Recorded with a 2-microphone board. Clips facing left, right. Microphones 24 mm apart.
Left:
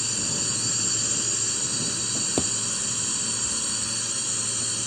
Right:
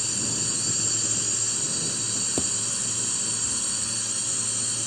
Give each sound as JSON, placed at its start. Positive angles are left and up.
{"t": 0.0, "sound": "a drone", "side_deg": 10}
{"t": 2.1, "sound": "a drawer", "side_deg": 20}